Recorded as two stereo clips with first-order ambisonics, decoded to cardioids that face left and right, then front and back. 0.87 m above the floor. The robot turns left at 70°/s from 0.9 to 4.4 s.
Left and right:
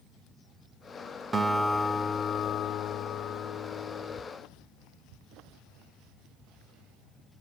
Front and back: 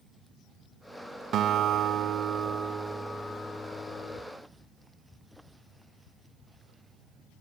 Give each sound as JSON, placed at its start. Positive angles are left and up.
{"t": 1.3, "sound": "a guitar", "azimuth_deg": -150, "distance_m": 0.6}